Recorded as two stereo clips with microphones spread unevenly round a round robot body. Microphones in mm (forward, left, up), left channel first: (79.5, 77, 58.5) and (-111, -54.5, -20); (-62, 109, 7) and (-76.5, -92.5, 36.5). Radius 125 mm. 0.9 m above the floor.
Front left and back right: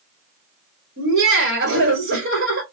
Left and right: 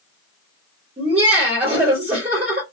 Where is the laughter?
155° right, 1.7 m.